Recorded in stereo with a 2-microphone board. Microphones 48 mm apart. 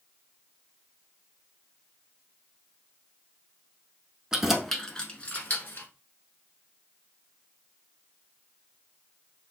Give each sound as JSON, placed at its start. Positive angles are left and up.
{"t": 4.3, "sound": "keys jangling", "side_deg": -10, "distance_m": 0.8}